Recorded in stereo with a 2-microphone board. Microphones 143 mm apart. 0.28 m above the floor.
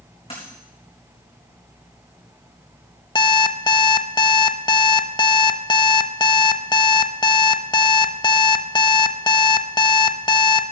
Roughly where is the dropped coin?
Left.